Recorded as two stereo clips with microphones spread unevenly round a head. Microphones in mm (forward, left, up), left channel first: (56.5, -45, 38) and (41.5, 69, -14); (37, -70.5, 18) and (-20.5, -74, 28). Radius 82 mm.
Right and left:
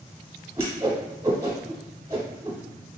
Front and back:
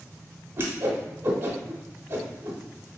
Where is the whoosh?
170° right, 0.8 m.